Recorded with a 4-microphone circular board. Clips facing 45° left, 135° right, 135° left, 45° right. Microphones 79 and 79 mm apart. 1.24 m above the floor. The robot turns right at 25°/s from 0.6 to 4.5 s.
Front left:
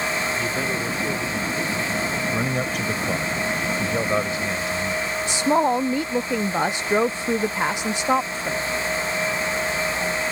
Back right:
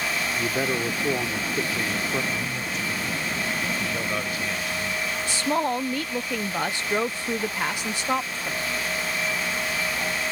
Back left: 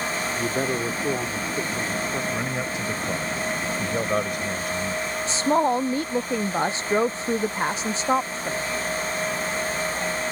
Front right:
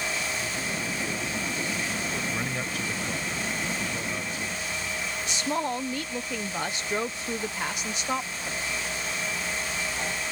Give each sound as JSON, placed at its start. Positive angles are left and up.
{"t": 0.4, "sound": "a man speaking", "azimuth_deg": 150}
{"t": 2.3, "sound": "a man speaking", "azimuth_deg": 55}
{"t": 5.3, "sound": "a woman speaking", "azimuth_deg": 100}